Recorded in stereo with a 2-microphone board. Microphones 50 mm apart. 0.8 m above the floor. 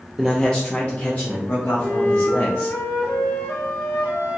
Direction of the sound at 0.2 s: 5° left (ahead or behind).